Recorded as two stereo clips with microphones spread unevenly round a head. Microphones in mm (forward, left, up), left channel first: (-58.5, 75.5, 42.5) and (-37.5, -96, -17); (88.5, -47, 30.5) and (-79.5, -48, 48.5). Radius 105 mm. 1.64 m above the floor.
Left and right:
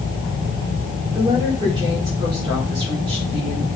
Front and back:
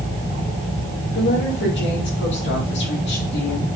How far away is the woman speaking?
About 4 m.